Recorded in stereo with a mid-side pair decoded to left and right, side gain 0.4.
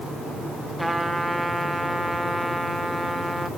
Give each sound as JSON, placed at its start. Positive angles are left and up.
{"t": 0.8, "sound": "a trumpet", "azimuth_deg": -10, "distance_m": 1.8}